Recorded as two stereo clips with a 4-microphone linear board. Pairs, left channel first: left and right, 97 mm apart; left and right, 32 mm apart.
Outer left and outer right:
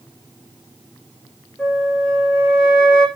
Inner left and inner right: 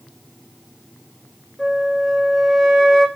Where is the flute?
5° left (ahead or behind), 8 m.